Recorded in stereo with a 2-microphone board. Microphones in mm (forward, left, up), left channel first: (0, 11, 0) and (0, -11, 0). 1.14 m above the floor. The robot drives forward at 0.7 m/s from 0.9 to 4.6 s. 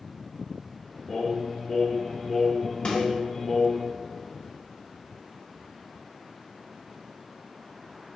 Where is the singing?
10° left (ahead or behind), 2 m; by 3.9 s 30° left (ahead or behind), 0.6 m.